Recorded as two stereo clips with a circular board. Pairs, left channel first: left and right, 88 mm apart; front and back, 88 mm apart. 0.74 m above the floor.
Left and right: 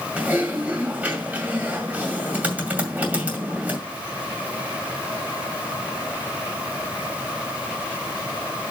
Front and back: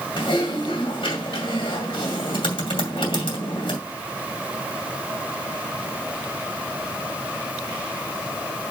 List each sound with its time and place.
0.2 s typing on a keyboard: 15° right, 2.5 m